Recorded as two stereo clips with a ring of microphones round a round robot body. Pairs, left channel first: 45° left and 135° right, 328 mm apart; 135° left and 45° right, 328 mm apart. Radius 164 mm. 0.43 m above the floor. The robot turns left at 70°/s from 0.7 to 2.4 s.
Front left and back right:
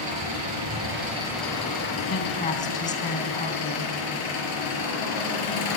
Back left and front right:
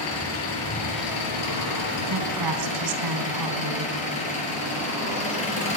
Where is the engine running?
175° right, 6.5 m; by 5.8 s 65° left, 6.5 m.